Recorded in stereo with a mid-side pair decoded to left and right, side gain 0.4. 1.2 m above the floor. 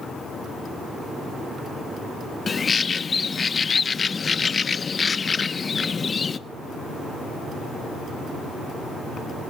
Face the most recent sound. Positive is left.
turn(degrees=40)